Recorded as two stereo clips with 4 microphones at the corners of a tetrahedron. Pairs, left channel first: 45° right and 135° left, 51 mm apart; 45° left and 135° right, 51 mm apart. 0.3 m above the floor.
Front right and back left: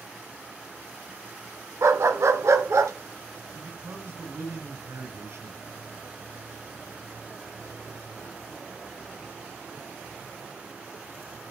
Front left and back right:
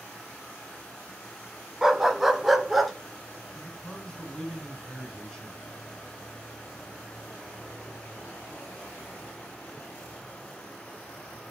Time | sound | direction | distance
1.8 | a dog barking | 145° left | 1.0 m
3.5 | a man speaking | 125° left | 4.5 m